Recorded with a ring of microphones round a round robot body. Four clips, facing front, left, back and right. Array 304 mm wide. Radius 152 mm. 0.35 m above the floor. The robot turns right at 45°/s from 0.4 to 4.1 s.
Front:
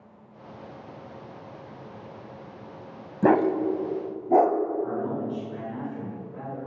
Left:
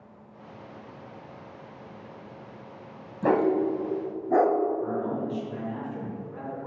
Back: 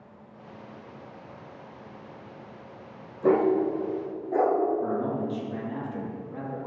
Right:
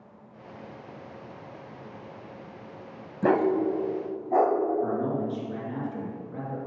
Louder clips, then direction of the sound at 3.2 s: Even, front 1 dB; 10° right.